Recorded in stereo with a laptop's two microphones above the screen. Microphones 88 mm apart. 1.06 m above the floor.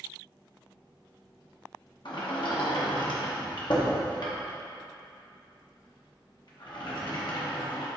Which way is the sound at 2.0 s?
60° left (ahead or behind).